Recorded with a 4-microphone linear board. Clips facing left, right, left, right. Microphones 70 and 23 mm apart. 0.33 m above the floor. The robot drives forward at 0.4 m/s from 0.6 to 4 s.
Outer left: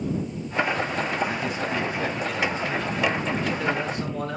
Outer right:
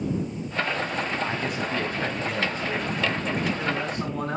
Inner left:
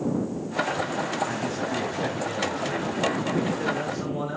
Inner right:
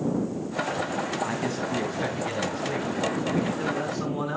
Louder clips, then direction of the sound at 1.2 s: Outer left 1 dB, even; 55° right (ahead or behind).